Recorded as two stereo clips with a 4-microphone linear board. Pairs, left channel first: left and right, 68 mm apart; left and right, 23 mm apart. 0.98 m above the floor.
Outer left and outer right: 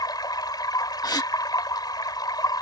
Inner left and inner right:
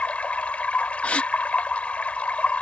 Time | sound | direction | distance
0.0 | running water | 85° left | ?
1.0 | a gasp | 75° left (ahead or behind) | ?